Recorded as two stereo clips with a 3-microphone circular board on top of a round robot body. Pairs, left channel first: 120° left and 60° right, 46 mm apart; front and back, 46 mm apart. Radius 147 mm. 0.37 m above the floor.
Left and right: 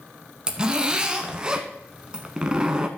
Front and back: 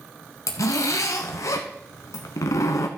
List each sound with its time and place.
0.5 s a zipper: 15° left, 0.8 m